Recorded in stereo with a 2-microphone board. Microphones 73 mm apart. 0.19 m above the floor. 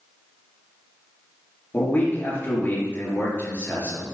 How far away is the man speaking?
About 3 m.